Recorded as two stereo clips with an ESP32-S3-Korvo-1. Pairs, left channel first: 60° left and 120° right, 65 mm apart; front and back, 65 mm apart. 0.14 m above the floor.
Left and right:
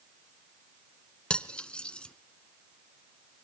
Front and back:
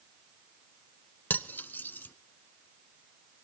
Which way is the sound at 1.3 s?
5° left.